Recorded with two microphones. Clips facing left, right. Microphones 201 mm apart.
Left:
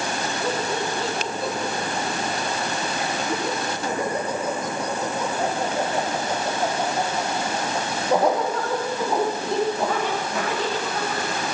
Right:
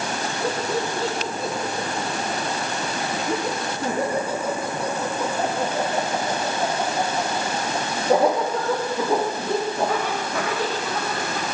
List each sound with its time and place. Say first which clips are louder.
0.4 s laughter: right 2 dB; 35° right (ahead or behind), 5.5 m; by 11.4 s 65° right (ahead or behind), 16.5 m